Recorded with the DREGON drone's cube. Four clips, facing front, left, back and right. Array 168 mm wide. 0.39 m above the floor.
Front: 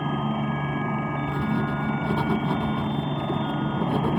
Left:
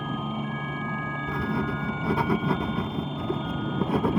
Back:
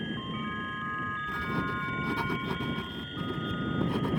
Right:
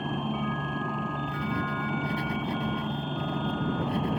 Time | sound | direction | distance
0.0 | a helicopter | straight ahead | ?
1.3 | writing | 65° left | ?